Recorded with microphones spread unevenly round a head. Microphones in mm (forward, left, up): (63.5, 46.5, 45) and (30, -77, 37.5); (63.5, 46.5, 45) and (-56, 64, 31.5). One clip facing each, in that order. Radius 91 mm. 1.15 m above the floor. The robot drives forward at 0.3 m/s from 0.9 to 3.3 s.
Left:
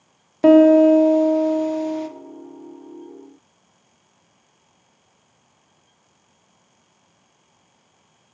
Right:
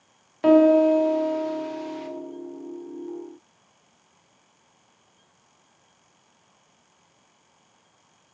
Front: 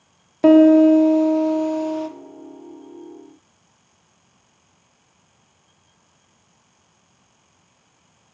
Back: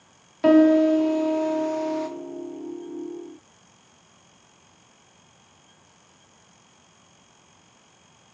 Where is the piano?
30° left, 0.6 m; by 2.1 s 75° left, 0.5 m.